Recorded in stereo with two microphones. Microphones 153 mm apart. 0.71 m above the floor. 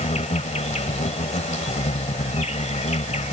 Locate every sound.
0.0 s an insect: 50° left (ahead or behind)